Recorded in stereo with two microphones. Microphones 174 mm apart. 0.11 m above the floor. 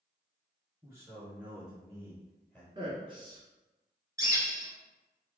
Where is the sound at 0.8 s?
20° right (ahead or behind), 1.9 m; by 2.6 s 10° left (ahead or behind), 2.5 m.